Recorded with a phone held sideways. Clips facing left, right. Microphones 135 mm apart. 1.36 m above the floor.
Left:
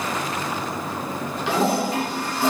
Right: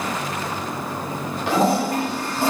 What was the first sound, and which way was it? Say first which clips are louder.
A toilet flushing: right 2 dB; 50° right (ahead or behind).